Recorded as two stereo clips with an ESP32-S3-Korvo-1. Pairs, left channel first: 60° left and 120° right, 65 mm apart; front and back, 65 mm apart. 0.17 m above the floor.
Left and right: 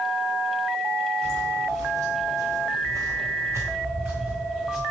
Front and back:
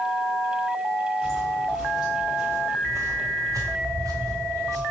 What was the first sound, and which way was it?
Footsteps, 80° right.